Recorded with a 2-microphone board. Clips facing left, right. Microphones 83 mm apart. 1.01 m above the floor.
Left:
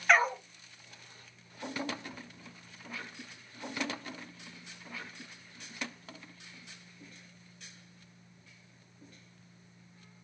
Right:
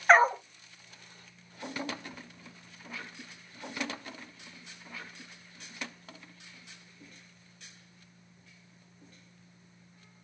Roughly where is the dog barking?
Right.